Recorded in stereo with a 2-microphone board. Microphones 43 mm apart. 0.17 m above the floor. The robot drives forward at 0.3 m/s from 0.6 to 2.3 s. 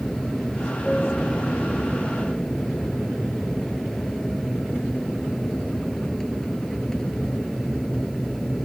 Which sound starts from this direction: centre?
An aircraft, at 0.0 s.